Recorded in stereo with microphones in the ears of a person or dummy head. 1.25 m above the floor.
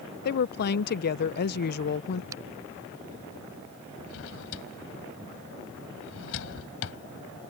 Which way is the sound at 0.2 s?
55° left (ahead or behind).